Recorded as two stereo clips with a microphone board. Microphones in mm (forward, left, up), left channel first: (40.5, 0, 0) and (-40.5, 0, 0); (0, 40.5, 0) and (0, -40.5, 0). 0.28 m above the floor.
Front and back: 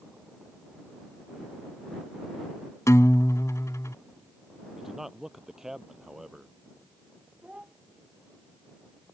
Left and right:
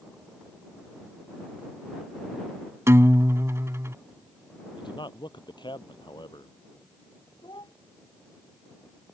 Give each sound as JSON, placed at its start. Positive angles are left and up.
{"t": 2.9, "sound": "a guitar", "azimuth_deg": -45}
{"t": 4.8, "sound": "a man speaking", "azimuth_deg": 95}
{"t": 7.4, "sound": "a child speaking", "azimuth_deg": 105}